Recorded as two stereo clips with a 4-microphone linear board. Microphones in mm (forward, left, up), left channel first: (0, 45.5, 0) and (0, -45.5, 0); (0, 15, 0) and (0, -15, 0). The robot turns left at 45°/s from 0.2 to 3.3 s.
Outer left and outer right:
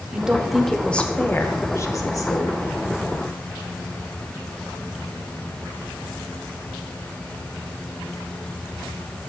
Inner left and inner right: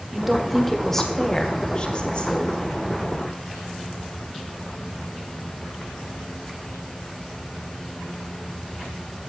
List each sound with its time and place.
0.1 s a woman speaking: 165° right, 0.9 m; by 2.6 s 90° left, 0.9 m